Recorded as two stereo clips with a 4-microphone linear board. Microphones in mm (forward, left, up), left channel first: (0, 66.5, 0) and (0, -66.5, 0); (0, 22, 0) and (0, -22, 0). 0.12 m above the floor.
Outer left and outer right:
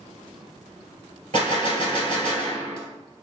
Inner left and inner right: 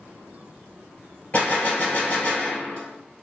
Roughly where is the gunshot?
Left.